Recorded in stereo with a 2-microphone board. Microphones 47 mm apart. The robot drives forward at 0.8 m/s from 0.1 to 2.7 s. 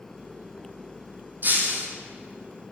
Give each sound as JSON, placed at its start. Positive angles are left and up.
{"t": 1.4, "sound": "breaking glass", "side_deg": -40, "distance_m": 1.7}